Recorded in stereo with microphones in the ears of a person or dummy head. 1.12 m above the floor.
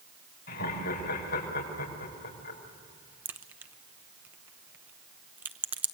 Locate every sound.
0.5 s laughter: 55° left (ahead or behind), 5 m
3.2 s a crack: 10° right (ahead or behind), 0.7 m